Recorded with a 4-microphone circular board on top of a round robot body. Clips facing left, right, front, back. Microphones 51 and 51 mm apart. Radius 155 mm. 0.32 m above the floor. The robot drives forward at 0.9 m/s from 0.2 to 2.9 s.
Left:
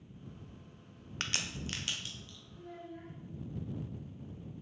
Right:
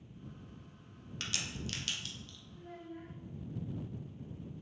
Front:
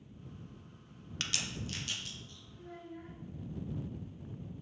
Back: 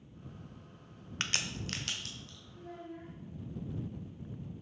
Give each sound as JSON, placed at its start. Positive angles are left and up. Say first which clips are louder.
{"t": 1.2, "sound": "a crack", "louder": "left 3 dB, back 3 dB", "azimuth_deg": 125, "distance_m": 0.6}
{"t": 2.5, "sound": "a child speaking", "louder": "left 1 dB, back 2 dB", "azimuth_deg": -170, "distance_m": 2.5}